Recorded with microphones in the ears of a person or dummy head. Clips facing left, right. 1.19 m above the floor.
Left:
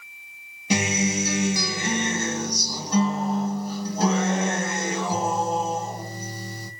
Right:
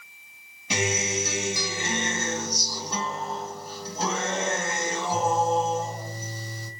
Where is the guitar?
45° left (ahead or behind), 1.7 m.